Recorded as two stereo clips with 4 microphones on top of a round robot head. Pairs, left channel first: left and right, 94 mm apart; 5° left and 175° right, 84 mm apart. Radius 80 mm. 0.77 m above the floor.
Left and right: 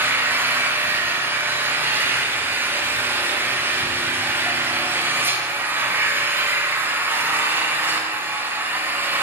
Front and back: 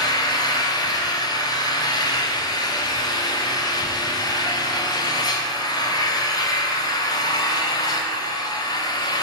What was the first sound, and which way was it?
An engine running, 25° right.